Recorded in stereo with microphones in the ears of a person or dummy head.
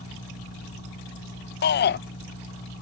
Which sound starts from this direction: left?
A shout, at 1.6 s.